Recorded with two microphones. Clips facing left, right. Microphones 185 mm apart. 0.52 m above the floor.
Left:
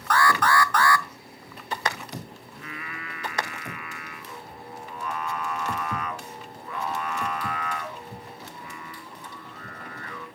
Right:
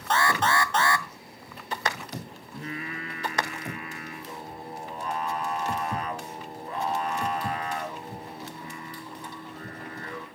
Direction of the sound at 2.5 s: 35° right (ahead or behind).